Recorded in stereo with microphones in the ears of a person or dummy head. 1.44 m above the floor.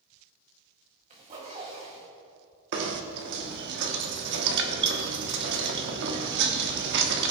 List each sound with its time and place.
1.1 s a zipper: 30° right (ahead or behind), 1.8 m
2.7 s knocking: 60° right (ahead or behind), 1.0 m